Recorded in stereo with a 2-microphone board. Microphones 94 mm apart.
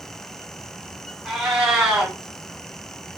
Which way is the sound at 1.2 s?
10° right (ahead or behind).